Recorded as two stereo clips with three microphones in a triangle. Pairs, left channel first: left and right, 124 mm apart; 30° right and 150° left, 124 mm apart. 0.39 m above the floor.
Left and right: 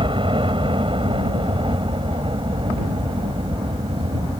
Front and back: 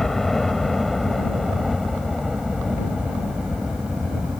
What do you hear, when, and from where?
0.0 s a helicopter: 115° right; by 4.4 s 125° right